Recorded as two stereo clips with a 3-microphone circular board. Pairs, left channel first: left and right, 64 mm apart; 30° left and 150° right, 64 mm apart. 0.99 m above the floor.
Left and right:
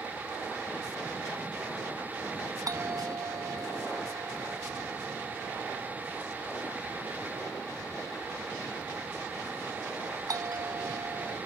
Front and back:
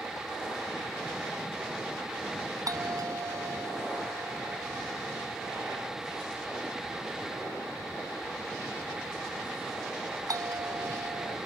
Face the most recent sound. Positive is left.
turn(degrees=-120)